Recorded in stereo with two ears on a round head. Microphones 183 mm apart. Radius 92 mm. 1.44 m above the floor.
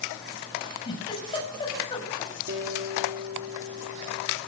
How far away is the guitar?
About 2.5 m.